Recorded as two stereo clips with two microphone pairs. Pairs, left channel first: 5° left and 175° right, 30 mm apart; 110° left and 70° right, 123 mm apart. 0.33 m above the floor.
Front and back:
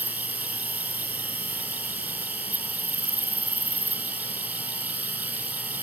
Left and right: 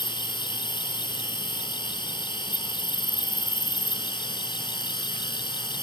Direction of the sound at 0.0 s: 160° left.